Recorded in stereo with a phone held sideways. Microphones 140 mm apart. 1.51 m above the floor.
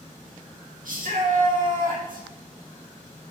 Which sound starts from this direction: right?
A shout, at 0.8 s.